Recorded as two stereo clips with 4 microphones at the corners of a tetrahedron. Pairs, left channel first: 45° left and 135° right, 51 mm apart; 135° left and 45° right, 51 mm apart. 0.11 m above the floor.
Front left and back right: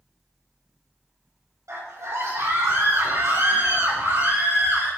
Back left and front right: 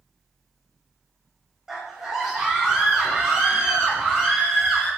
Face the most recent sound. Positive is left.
turn(degrees=-125)